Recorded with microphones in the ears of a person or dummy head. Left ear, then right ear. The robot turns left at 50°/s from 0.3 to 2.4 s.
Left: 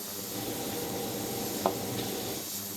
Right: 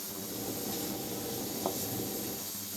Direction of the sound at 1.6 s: 70° left (ahead or behind).